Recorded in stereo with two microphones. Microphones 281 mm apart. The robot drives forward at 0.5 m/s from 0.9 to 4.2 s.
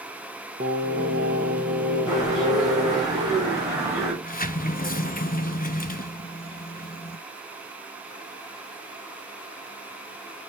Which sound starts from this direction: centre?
A bird, at 2.1 s.